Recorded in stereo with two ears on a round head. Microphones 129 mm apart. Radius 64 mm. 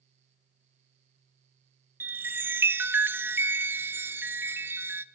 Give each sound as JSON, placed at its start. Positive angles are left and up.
{"t": 2.0, "sound": "a chime", "side_deg": -15, "distance_m": 0.6}